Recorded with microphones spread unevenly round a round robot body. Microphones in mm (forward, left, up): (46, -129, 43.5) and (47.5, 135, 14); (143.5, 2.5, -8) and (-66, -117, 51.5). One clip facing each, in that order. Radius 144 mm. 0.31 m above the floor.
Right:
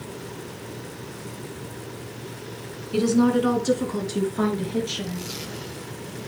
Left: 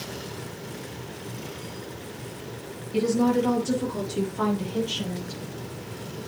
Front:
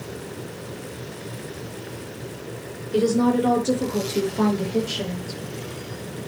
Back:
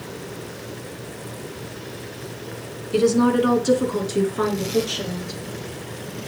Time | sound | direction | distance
2.9 | a woman speaking | 90° right | 4 m